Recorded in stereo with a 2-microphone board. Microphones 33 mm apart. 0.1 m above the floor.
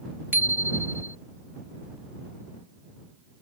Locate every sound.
0.3 s a bicycle bell: 85° right